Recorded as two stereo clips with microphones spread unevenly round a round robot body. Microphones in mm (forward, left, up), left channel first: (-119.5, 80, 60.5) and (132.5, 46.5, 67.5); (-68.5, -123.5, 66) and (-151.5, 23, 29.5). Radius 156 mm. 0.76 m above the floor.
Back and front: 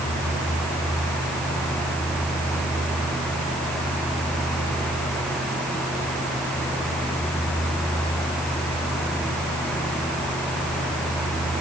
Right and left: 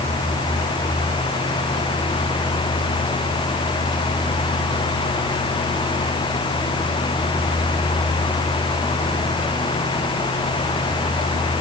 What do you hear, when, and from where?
Only background noise.